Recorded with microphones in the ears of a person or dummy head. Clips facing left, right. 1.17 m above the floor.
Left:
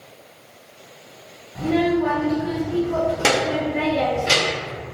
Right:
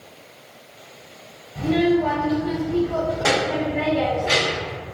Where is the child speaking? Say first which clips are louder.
Right 1 dB; 15° left (ahead or behind), 1.3 m; by 4.8 s 70° left (ahead or behind), 1.3 m.